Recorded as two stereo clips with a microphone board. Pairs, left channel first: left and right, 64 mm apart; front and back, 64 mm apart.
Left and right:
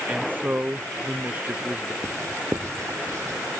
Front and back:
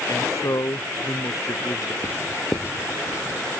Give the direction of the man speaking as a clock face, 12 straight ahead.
1 o'clock.